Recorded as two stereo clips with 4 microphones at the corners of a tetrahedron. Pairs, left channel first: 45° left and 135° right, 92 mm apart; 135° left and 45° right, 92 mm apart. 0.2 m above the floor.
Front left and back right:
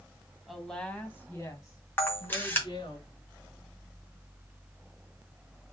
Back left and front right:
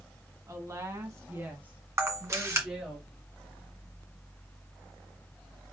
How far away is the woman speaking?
About 1.6 m.